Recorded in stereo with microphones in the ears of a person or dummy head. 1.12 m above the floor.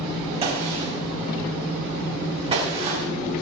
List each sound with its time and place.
0.4 s a gunshot: 35° right (ahead or behind), 3.5 m